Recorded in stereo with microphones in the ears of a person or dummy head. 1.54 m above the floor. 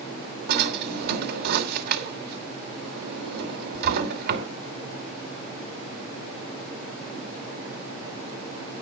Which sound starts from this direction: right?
A drawer, at 0.5 s.